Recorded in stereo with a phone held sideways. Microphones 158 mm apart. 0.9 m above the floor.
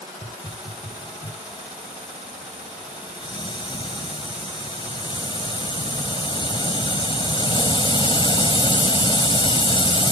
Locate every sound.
0.2 s a hiss: 30° left (ahead or behind)